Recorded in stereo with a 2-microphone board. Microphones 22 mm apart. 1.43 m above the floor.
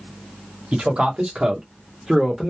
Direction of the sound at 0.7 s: 75° right (ahead or behind).